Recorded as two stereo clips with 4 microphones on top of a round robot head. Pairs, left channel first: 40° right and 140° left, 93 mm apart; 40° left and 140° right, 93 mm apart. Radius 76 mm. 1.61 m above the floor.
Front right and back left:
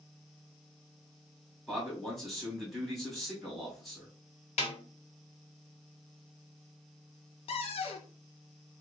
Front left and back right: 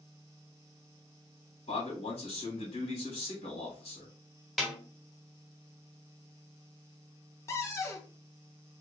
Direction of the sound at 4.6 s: 45° right.